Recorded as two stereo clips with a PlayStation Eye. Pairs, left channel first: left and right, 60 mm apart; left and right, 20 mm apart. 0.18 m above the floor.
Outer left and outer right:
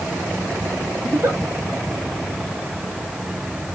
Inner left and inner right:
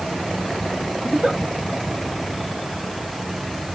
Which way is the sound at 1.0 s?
50° right (ahead or behind).